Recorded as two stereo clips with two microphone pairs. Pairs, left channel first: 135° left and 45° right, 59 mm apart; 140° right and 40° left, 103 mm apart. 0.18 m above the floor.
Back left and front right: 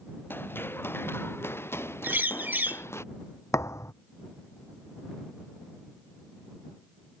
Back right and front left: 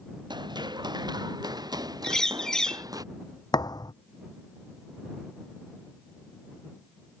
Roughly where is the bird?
Ahead right.